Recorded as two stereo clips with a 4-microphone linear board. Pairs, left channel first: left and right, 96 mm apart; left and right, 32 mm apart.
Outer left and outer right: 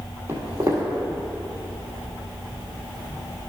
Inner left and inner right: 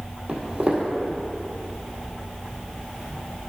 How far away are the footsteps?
About 2 m.